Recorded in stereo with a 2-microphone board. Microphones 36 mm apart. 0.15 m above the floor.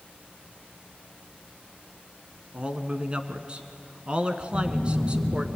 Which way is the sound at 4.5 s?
80° right.